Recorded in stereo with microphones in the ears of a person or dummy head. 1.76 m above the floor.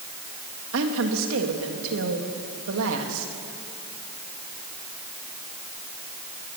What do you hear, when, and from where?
0.7 s a woman speaking: 80° right, 3 m